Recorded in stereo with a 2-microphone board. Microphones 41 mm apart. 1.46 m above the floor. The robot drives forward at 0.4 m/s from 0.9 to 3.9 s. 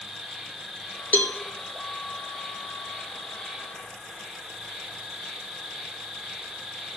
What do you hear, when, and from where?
0.0 s an insect: 5° left (ahead or behind), 1.2 m
1.1 s a cowbell: 35° left (ahead or behind), 0.8 m; by 1.4 s 40° left (ahead or behind), 0.7 m